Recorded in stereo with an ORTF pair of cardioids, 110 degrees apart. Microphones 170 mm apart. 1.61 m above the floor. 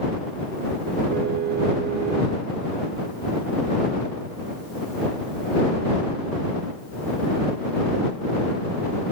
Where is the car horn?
70° right.